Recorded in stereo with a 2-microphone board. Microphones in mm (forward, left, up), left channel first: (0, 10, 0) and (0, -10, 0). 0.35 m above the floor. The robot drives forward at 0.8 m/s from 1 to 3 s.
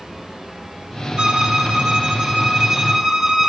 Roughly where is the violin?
Right.